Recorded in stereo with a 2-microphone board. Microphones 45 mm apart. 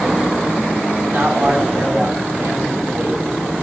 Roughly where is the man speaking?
Right.